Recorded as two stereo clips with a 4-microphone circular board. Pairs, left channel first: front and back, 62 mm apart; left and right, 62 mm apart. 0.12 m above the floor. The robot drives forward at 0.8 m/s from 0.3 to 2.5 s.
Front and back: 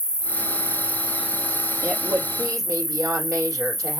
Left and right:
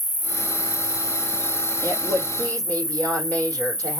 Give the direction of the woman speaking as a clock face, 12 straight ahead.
7 o'clock.